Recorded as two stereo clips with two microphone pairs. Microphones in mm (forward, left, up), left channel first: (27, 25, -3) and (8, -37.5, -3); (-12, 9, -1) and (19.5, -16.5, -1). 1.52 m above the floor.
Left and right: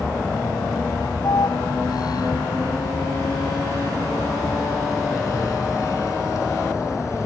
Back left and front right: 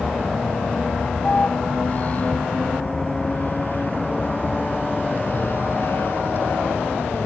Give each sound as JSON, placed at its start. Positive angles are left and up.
{"t": 0.0, "sound": "a vehicle", "azimuth_deg": 75}